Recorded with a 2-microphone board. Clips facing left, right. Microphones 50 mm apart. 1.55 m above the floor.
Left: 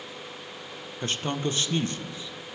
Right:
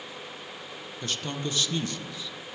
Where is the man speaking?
30° left (ahead or behind), 1.2 m.